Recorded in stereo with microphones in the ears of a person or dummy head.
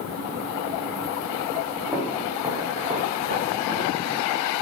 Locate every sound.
1.9 s footsteps: 5° right (ahead or behind), 2.5 m; by 4.3 s 55° right (ahead or behind), 2 m